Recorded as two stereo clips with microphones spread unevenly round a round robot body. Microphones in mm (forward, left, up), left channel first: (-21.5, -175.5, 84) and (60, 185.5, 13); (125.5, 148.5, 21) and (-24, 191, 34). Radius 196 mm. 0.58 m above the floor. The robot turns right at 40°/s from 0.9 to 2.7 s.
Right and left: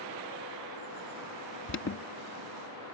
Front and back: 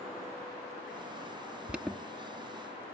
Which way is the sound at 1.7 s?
115° right.